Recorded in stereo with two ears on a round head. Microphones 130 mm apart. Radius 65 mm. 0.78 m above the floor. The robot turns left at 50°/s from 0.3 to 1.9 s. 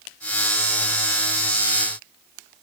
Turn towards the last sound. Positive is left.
No sound to turn to.